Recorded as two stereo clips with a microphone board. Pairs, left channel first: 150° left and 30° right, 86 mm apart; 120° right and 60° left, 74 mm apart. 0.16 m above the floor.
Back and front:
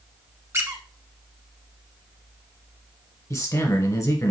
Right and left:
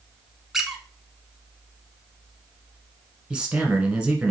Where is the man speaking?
130° left, 1.5 m.